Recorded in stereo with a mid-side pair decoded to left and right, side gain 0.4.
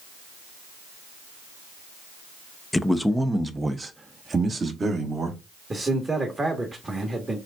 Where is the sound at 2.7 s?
20° left, 0.7 m; by 5.4 s 45° right, 2 m.